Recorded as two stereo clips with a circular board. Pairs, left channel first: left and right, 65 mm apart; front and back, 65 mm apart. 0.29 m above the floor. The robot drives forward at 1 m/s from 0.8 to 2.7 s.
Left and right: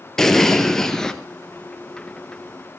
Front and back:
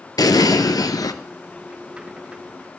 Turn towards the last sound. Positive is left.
turn(degrees=170)